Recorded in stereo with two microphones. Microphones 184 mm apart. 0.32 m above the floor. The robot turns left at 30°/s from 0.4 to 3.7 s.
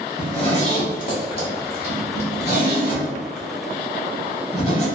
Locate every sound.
0.2 s a zipper: 30° left (ahead or behind), 0.9 m; by 4.9 s 35° left (ahead or behind), 0.9 m